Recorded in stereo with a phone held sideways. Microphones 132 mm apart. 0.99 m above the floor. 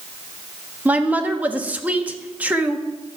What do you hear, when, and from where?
0.8 s a woman speaking: 10° right (ahead or behind), 1.2 m